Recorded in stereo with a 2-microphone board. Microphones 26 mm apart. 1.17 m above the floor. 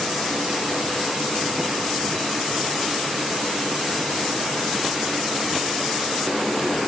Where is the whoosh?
I don't hear a whoosh.